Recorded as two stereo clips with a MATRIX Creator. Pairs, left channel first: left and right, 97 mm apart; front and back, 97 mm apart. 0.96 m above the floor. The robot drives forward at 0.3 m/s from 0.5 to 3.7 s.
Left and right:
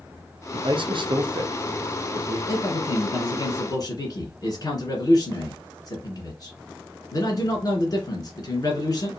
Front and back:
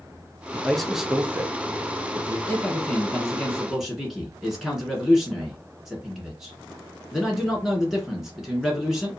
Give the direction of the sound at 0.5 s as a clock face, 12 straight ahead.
3 o'clock.